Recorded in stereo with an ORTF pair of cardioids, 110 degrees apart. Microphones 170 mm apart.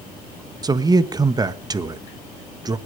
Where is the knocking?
No knocking in this recording.